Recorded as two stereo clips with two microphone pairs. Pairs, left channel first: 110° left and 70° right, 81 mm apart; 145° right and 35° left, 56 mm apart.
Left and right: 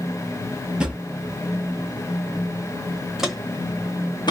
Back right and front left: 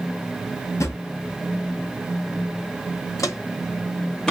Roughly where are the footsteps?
Behind right.